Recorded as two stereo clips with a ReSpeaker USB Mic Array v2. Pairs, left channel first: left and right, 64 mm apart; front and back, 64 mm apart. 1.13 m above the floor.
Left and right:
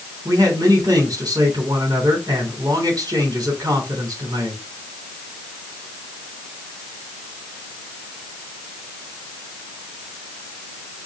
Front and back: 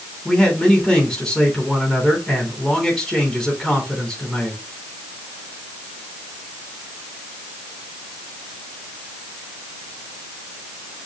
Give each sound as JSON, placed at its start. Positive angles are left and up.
{"t": 0.2, "sound": "a man speaking", "azimuth_deg": -80, "distance_m": 3.0}